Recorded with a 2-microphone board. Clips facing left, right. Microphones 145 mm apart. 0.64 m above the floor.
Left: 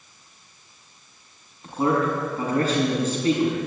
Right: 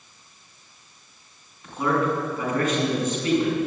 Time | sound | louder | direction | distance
1.6 | a man speaking | left 1 dB | 35° left (ahead or behind) | 6 m